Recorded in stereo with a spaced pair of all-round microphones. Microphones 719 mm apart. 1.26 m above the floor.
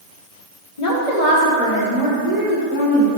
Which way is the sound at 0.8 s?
70° left (ahead or behind).